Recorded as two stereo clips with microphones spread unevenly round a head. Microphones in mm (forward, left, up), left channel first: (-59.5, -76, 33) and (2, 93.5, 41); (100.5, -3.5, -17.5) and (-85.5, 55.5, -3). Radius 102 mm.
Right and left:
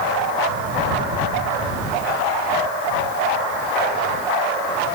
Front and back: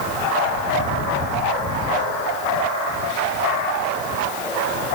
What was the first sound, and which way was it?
Only background noise.